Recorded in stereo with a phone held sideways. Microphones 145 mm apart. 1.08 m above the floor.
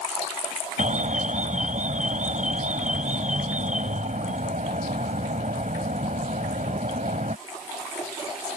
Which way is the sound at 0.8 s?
60° right (ahead or behind).